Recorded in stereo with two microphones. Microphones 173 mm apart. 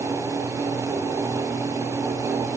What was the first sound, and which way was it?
Only background noise.